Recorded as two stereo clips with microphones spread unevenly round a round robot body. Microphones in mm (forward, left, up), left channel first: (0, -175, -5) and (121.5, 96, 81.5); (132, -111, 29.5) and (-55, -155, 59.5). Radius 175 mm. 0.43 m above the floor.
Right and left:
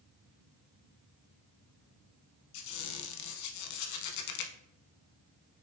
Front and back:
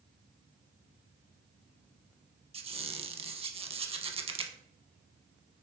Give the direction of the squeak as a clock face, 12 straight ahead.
4 o'clock.